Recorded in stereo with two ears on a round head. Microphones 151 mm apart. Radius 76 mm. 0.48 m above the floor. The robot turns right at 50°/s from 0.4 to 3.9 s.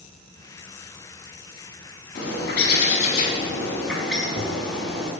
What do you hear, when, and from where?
2.1 s a bird: 90° left, 4.5 m; by 5.1 s 175° left, 4.5 m